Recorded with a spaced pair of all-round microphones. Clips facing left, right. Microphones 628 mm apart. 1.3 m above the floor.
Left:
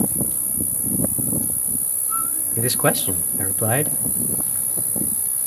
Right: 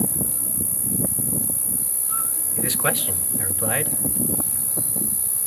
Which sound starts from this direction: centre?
An insect, at 0.0 s.